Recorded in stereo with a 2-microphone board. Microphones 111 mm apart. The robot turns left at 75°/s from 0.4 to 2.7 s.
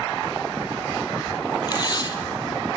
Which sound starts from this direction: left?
Tape being pulled, at 1.7 s.